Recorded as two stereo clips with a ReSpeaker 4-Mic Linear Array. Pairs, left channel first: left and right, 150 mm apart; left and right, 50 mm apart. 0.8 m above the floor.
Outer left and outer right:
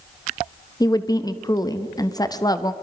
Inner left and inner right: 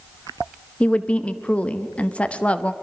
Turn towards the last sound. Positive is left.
turn(degrees=25)  # may be behind; listen again after turning